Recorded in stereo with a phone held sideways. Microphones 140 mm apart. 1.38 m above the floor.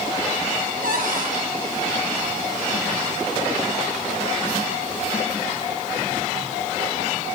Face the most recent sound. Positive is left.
turn(degrees=-80)